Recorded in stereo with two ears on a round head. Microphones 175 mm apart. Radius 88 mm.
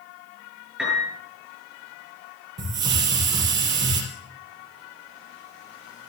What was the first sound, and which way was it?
A piano, 5° right (ahead or behind).